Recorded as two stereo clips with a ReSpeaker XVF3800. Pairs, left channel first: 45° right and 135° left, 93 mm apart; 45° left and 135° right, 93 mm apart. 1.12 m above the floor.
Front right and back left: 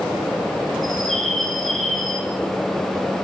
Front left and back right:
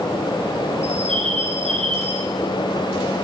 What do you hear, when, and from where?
0.8 s a bird: 130° right, 4.5 m